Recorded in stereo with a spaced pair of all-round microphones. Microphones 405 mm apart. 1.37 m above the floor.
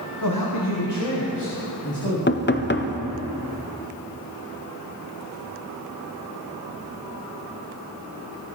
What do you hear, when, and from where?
0.2 s a man speaking: 50° left (ahead or behind), 0.9 m; by 2.2 s 75° left (ahead or behind), 2.5 m
2.3 s knocking: 30° left (ahead or behind), 0.5 m